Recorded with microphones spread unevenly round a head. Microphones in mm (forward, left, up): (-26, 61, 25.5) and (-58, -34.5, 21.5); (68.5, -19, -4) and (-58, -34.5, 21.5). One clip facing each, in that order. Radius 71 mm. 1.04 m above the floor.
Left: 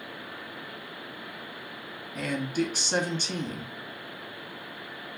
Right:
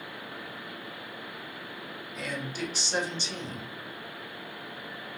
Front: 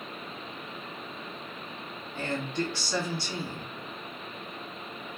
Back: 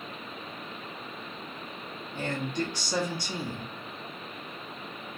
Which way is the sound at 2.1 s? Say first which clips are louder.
Left 7 dB, even; 110° left.